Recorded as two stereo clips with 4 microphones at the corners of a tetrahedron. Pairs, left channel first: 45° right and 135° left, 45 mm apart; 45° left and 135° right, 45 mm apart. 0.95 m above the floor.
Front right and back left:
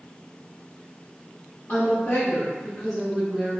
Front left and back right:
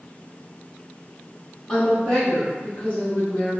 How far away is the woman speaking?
About 1.5 m.